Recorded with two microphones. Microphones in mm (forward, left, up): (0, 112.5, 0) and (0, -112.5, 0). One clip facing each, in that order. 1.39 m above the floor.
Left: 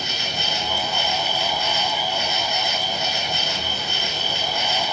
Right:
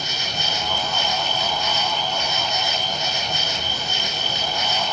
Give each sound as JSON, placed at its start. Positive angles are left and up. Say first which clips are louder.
{"t": 0.0, "sound": "an insect", "louder": "left 1 dB", "side_deg": -40, "distance_m": 4.0}